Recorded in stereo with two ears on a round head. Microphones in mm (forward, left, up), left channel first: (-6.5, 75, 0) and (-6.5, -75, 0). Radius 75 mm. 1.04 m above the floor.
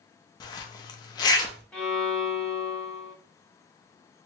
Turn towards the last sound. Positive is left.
turn(degrees=10)  # may be behind; listen again after turning